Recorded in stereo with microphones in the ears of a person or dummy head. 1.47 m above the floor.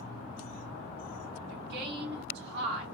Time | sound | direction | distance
1.5 | a woman speaking | 50° right (ahead or behind) | 1.9 m